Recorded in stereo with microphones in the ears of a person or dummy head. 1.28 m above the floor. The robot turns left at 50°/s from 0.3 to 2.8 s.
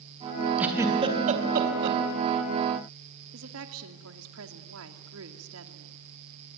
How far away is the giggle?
About 3.5 m.